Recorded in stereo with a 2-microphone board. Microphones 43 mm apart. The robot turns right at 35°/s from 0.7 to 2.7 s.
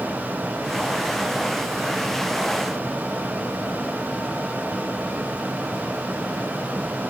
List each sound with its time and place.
Only background noise.